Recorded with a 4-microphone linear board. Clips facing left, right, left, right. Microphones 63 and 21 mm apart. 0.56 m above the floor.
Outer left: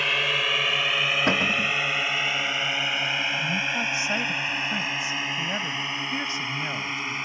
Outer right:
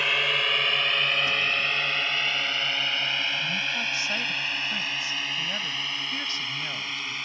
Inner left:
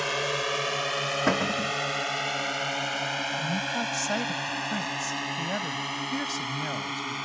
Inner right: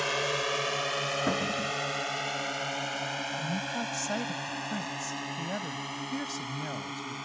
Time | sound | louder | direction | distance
0.0 | a drone | even, inner left 1 dB | centre (ahead or behind) | ?
1.3 | a cupboard door | outer left 3 dB, inner left 4 dB | 65° left (ahead or behind) | ?
3.4 | a woman speaking | outer left 3 dB, inner left 4 dB | 20° left (ahead or behind) | ?